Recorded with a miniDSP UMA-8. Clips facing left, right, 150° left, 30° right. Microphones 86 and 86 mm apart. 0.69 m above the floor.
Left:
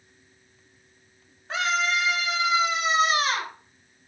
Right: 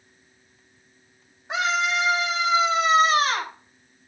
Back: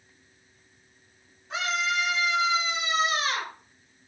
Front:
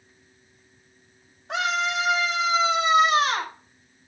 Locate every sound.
1.5 s a scream: 20° right, 5.5 m; by 3.5 s 50° right, 4.5 m